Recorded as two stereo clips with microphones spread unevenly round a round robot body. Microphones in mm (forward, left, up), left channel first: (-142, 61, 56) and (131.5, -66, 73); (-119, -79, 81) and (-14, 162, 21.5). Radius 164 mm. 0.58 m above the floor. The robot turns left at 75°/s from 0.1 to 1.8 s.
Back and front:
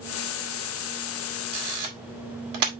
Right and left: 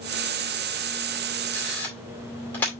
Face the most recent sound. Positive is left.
turn(degrees=-25)